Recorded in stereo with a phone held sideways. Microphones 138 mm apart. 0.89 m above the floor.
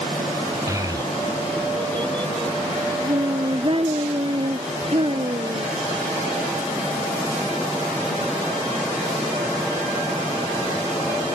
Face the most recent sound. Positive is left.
turn(degrees=-45)  # may be behind; listen again after turning